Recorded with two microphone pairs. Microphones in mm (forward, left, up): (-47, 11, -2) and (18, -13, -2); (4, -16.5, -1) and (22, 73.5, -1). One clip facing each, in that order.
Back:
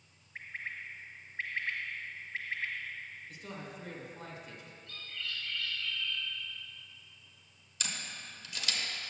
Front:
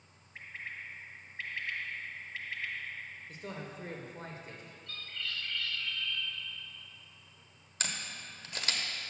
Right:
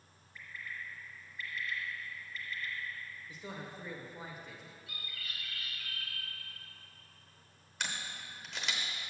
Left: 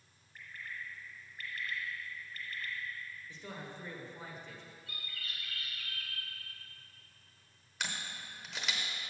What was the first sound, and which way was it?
A bird, 100° left.